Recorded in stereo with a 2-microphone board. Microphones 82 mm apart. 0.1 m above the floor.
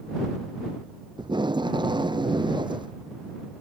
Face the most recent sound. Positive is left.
turn(degrees=-70)  # may be behind; listen again after turning